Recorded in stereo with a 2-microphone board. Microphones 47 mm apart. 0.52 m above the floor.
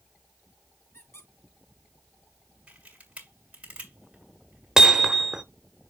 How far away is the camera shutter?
About 2.5 m.